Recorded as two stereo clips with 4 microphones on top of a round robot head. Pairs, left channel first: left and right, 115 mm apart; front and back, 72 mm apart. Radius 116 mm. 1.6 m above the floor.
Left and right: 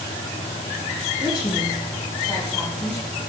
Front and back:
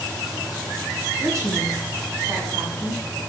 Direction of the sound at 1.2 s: 135° left.